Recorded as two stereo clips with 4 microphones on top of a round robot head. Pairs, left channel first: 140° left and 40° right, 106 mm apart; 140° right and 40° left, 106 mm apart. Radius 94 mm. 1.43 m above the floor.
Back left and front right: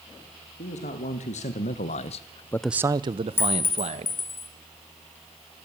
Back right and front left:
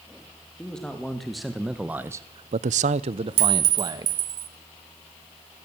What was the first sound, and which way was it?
A man speaking, 135° left.